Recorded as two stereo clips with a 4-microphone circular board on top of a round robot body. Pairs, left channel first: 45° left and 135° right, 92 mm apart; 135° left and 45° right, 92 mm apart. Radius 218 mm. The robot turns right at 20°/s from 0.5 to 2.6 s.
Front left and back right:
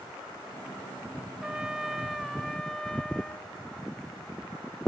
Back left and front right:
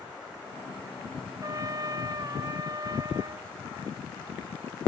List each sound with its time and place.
1.4 s a trumpet: 60° right, 1.0 m; by 3.5 s 35° right, 1.0 m